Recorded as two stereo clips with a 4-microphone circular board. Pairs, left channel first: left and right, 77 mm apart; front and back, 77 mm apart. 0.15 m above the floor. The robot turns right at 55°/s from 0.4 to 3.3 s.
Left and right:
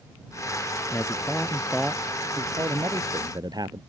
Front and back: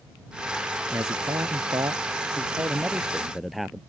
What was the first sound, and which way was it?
A man speaking, 135° left.